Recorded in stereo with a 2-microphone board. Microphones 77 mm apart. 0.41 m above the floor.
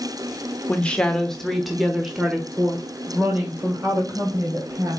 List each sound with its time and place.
0.7 s a woman speaking: 15° left (ahead or behind), 1.2 m; by 5.0 s 30° right (ahead or behind), 2.5 m